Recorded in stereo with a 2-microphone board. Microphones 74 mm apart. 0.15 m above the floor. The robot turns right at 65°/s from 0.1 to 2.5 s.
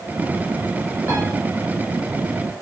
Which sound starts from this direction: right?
A piano, at 1.1 s.